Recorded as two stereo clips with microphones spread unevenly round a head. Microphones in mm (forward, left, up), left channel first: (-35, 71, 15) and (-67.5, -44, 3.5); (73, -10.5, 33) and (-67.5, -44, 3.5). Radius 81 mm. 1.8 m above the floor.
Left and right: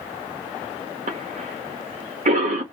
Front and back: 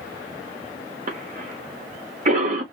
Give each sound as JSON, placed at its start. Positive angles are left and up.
{"t": 1.1, "sound": "a cough", "azimuth_deg": -130, "distance_m": 1.1}